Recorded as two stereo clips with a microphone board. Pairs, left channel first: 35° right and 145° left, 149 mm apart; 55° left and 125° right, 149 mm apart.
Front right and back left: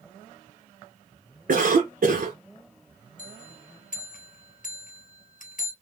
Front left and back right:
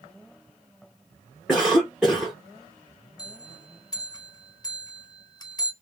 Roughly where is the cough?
Behind left.